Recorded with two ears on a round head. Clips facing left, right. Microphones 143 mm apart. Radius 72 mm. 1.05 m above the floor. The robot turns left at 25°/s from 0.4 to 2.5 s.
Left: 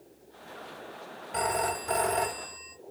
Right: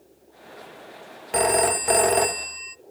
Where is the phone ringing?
80° right, 0.8 m; by 2.8 s 70° right (ahead or behind), 0.8 m.